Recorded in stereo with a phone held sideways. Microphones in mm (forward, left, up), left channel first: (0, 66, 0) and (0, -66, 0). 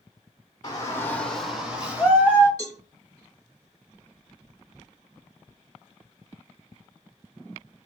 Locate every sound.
0.6 s a shout: 25° left (ahead or behind), 0.6 m; by 2.5 s 15° right (ahead or behind), 1.4 m
2.6 s a cowbell: 30° right (ahead or behind), 1.4 m